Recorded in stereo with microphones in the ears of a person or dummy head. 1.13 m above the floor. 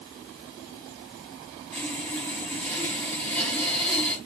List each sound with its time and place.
1.7 s sawing: 10° left (ahead or behind), 4.5 m